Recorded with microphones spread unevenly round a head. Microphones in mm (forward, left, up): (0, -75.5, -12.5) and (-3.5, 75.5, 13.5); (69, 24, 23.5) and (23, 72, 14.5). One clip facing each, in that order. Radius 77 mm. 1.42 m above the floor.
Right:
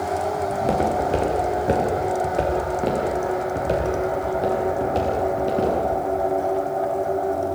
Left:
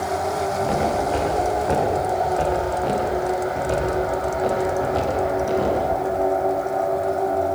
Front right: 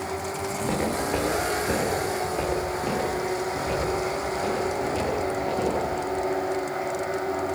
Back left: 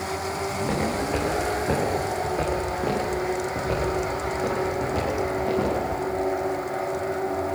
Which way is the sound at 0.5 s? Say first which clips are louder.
Right 1 dB, front right 1 dB; 130° right.